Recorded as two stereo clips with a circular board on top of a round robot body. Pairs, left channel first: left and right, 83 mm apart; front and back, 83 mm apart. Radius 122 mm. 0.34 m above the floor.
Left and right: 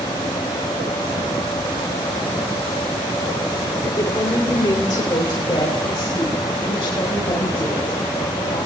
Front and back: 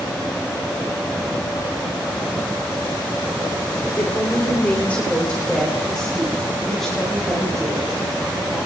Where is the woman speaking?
55° left, 2 m; by 8.6 s 90° left, 6.5 m.